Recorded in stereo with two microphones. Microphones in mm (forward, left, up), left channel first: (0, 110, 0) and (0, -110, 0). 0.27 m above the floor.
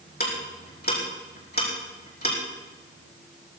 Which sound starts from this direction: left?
Ticking, at 0.2 s.